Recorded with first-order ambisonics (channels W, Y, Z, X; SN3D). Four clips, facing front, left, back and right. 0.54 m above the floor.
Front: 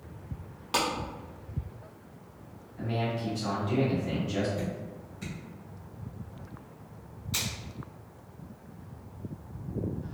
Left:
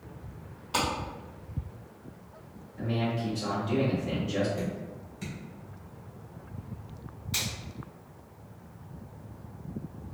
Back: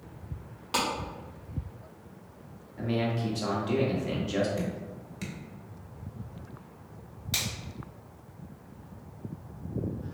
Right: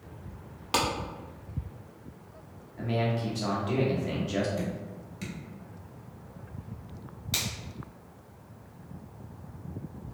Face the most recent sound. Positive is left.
turn(degrees=-135)